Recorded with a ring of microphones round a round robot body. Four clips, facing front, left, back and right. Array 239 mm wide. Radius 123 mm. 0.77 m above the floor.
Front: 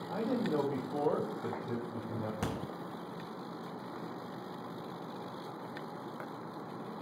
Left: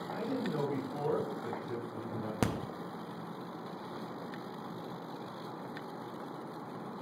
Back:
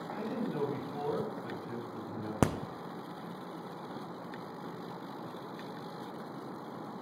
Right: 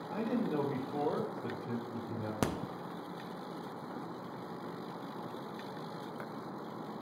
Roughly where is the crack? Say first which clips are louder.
Left 1 dB, back 10 dB; behind.